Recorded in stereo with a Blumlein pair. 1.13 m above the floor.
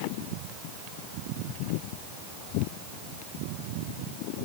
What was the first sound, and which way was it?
Only background noise.